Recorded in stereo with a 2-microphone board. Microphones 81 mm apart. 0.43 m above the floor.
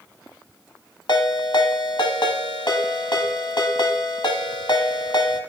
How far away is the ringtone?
About 1.0 m.